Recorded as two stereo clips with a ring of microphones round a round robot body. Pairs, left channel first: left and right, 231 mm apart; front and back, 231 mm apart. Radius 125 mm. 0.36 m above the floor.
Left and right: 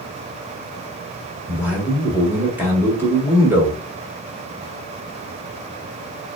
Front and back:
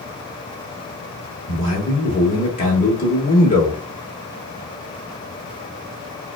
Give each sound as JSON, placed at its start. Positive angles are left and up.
{"t": 1.5, "sound": "a man speaking", "azimuth_deg": -15, "distance_m": 1.1}